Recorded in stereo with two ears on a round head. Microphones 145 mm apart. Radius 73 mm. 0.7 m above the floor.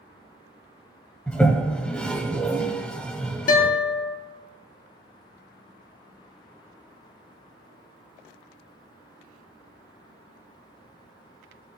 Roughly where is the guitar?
Left.